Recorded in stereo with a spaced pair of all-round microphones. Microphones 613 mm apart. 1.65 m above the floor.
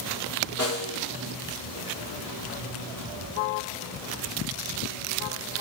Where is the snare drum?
25° left (ahead or behind), 1.4 m.